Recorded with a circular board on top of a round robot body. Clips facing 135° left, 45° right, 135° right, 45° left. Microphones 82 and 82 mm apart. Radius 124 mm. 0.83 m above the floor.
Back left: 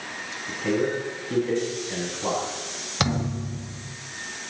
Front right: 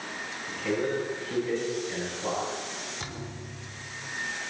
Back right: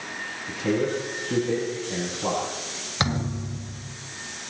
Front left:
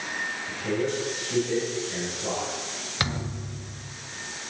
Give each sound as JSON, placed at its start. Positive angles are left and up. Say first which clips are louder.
{"t": 0.5, "sound": "a man speaking", "louder": "back left 4 dB, back right 4 dB", "azimuth_deg": -160, "distance_m": 9.0}
{"t": 3.0, "sound": "a thud", "louder": "back left 12 dB, back right 5 dB", "azimuth_deg": 155, "distance_m": 1.6}